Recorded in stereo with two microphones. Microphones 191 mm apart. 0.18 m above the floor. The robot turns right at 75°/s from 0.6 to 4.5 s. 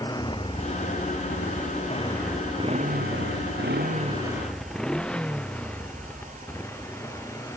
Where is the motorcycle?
20° left (ahead or behind); by 7.6 s 15° left (ahead or behind).